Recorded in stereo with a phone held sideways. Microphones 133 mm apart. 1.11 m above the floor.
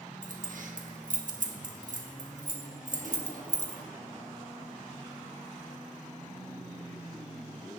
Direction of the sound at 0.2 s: 70° right (ahead or behind).